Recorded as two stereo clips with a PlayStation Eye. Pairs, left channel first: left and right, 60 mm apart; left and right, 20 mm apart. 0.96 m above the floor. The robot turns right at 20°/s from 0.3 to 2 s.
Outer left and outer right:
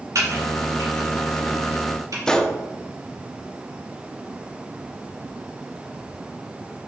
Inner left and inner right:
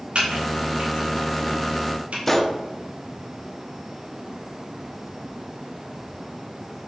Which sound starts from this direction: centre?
A gunshot, at 2.3 s.